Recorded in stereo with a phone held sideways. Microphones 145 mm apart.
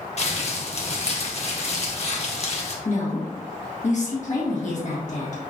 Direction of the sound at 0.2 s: 50° left (ahead or behind).